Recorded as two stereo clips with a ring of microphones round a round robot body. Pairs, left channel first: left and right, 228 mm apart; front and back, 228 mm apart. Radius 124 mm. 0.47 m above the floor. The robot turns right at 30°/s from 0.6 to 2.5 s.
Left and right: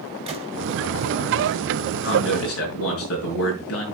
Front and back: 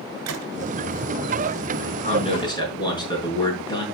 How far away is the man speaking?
About 5.5 m.